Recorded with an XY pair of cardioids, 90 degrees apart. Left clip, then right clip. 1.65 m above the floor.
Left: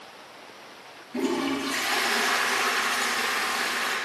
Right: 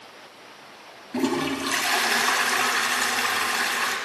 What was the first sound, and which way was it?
A toilet flushing, 65° right.